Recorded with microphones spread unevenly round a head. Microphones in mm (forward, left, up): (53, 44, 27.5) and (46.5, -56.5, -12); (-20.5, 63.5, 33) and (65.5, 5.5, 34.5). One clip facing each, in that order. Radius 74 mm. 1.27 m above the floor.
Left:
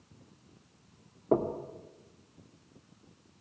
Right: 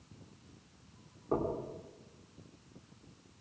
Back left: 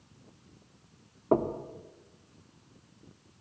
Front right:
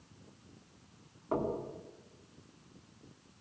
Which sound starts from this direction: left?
Knocking, at 1.3 s.